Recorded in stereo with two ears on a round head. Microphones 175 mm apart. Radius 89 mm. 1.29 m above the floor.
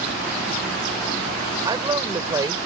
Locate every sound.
1.6 s a woman speaking: 20° right (ahead or behind)